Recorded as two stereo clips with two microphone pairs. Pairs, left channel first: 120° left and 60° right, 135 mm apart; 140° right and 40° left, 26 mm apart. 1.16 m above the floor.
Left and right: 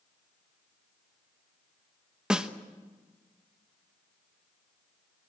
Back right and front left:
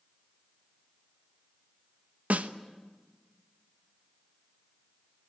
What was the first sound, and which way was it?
A snare drum, 25° left.